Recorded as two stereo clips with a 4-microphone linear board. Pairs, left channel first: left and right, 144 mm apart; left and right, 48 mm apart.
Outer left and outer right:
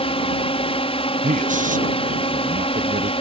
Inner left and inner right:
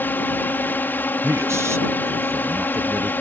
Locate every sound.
0.0 s a drone: 40° left (ahead or behind)
1.2 s a man speaking: 65° right (ahead or behind)